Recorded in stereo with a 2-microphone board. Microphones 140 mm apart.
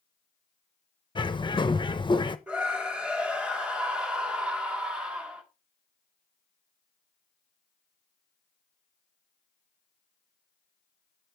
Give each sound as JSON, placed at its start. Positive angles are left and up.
{"t": 1.1, "sound": "a bird", "side_deg": 30, "distance_m": 0.7}
{"t": 2.5, "sound": "a scream", "side_deg": -5, "distance_m": 2.5}